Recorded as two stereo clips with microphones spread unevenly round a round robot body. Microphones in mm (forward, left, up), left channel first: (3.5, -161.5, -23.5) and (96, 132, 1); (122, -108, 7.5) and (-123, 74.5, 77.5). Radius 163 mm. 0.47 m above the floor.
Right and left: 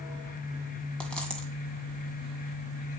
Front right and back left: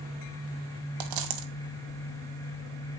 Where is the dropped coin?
165° left, 1.9 m.